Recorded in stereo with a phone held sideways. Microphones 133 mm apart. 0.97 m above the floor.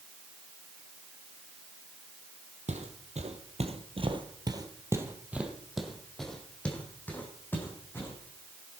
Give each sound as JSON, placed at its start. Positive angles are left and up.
{"t": 2.7, "sound": "footsteps", "side_deg": -65, "distance_m": 2.0}